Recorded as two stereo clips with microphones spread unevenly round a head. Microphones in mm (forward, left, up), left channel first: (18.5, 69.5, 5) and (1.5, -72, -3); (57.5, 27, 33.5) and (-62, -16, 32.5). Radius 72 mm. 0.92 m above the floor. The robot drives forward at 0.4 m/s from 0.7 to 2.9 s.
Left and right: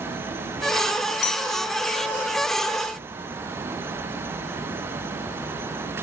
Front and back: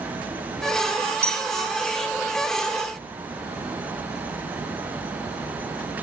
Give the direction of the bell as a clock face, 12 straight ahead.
8 o'clock.